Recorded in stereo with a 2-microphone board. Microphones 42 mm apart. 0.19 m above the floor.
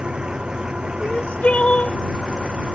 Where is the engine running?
20° right (ahead or behind).